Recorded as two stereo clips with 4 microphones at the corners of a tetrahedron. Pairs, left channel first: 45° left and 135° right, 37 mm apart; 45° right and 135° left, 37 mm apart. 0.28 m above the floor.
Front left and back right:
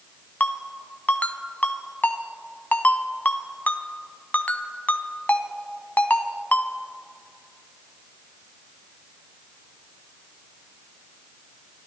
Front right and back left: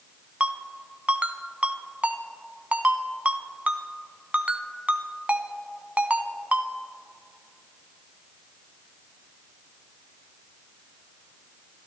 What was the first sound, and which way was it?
A ringtone, 85° left.